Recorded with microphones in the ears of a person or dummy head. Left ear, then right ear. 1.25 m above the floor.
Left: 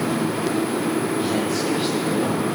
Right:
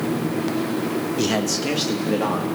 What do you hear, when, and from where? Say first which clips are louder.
1.2 s a man speaking: even; 65° right (ahead or behind), 1.1 m; by 2.5 s 70° right (ahead or behind), 2 m